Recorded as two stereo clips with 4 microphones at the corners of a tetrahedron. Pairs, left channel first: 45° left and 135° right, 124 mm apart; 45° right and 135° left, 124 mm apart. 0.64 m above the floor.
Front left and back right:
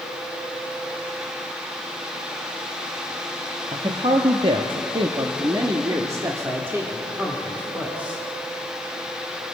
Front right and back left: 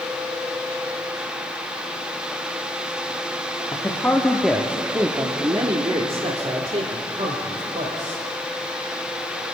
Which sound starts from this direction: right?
A man speaking, at 3.7 s.